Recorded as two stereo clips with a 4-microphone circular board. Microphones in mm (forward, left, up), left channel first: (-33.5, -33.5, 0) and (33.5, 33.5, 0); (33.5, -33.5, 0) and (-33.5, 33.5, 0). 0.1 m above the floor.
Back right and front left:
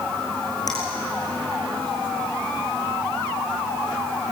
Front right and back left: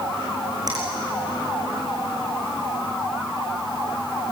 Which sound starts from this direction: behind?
A finger snap, at 0.7 s.